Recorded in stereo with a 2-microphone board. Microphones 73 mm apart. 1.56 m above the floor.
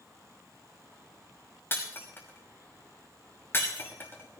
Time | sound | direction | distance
1.7 | breaking glass | 35° left (ahead or behind) | 6 m